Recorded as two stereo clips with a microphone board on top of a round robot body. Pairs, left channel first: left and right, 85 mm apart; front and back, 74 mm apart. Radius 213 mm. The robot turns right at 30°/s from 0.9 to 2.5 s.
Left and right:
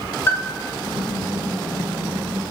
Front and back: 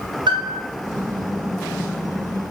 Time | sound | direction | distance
0.3 | a piano | 155° left | 0.6 m